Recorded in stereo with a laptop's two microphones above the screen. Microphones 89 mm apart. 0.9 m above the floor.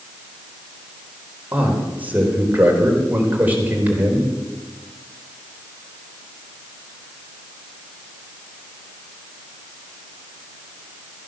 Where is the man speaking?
20° right (ahead or behind), 4 m.